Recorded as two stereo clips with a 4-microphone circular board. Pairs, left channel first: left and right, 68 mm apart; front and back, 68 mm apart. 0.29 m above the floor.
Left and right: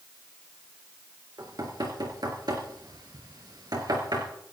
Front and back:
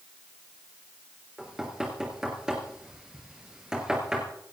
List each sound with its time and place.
1.4 s knocking: 100° right, 4 m